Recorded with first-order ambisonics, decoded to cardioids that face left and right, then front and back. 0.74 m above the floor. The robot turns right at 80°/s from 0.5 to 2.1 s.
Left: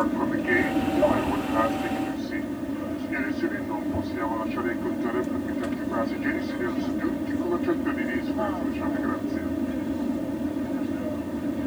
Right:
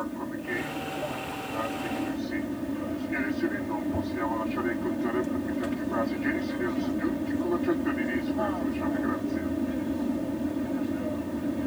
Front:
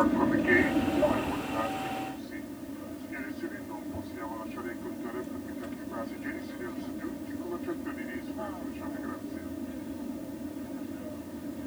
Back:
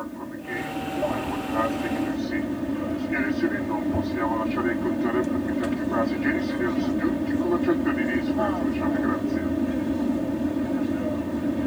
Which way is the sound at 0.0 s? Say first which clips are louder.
Left 9 dB, front 9 dB; 45° left.